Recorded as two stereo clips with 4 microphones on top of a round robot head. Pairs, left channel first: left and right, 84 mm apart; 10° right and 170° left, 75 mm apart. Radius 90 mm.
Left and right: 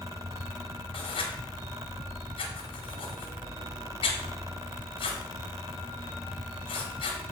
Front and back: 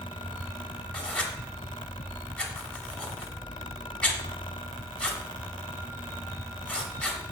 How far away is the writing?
About 1.4 m.